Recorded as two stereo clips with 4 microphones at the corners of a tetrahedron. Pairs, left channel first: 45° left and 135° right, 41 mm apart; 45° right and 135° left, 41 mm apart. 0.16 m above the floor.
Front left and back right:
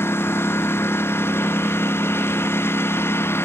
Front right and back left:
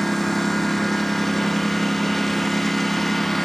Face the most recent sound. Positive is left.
turn(degrees=40)